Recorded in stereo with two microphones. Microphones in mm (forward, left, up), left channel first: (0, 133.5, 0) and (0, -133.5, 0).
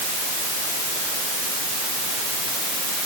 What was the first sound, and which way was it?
Only background noise.